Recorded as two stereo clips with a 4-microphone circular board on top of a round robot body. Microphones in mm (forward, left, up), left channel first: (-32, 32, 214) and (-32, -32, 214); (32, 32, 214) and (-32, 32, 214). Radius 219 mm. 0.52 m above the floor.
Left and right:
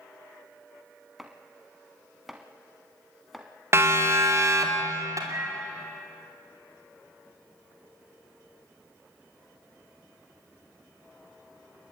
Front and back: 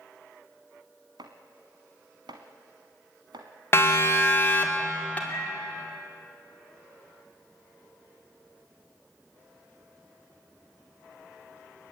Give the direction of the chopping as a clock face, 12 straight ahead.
6 o'clock.